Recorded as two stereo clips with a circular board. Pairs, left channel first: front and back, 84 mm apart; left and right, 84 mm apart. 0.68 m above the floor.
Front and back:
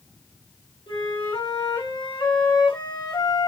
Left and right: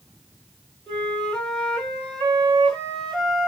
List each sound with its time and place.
0.9 s a flute: 5° left, 4 m